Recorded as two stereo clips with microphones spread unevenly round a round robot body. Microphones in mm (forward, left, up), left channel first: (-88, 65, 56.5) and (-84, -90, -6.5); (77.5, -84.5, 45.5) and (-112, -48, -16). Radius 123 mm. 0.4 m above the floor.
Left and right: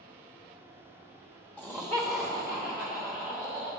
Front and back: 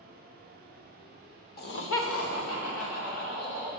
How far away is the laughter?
About 1.0 m.